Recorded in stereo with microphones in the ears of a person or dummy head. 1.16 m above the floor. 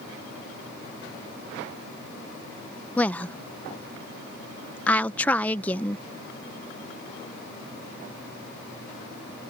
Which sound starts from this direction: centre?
A woman speaking, at 3.0 s.